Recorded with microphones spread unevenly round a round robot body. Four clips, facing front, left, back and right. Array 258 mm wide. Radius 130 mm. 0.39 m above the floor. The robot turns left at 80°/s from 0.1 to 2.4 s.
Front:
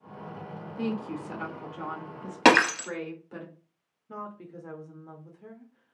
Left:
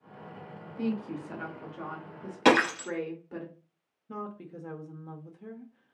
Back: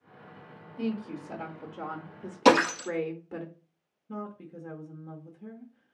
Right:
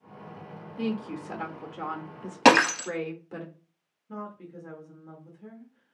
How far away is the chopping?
I don't hear chopping.